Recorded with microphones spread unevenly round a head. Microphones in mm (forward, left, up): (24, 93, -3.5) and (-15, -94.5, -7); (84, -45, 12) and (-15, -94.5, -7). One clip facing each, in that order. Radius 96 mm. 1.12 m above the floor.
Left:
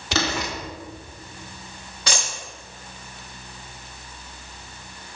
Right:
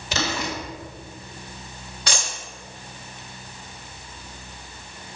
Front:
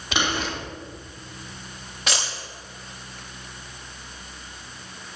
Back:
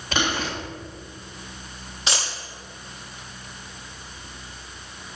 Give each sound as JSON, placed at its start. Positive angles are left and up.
{"t": 0.1, "sound": "boiling", "azimuth_deg": 110, "distance_m": 3.0}
{"t": 2.1, "sound": "a dropped coin", "azimuth_deg": 85, "distance_m": 5.5}